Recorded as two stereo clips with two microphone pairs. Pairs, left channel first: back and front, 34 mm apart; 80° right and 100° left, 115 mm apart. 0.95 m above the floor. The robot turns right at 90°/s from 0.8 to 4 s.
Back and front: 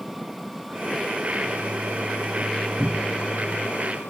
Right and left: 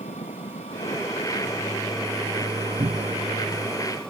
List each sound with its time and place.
0.0 s an engine running: 95° right; by 4.1 s 165° right
2.8 s a cupboard door: 65° left; by 3.3 s 110° left